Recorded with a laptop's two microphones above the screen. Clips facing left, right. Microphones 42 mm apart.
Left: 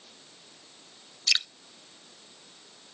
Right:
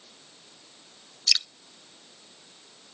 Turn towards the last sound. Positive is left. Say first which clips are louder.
# left 1 dB
turn(degrees=25)  # may be behind; listen again after turning